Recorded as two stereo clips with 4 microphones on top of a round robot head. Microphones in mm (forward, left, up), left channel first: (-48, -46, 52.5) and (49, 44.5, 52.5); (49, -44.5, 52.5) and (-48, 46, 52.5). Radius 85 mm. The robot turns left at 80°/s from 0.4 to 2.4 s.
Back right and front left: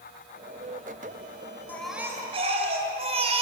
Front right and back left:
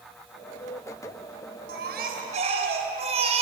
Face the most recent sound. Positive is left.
turn(degrees=90)